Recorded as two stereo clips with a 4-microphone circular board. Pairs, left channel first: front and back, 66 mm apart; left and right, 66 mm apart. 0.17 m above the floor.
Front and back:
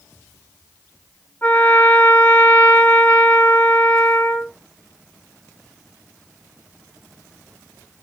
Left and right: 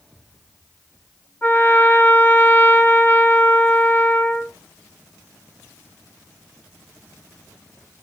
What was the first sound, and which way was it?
A trumpet, 50° left.